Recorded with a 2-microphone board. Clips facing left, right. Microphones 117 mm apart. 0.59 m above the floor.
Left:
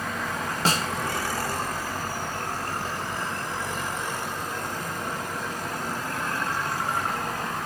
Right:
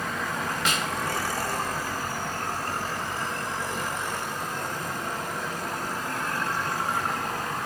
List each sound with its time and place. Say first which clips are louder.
0.7 s a snare drum: left 5 dB; 35° left (ahead or behind), 0.6 m